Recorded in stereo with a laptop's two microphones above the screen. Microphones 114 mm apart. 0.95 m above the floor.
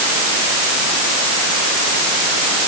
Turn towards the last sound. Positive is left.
No sound to turn to.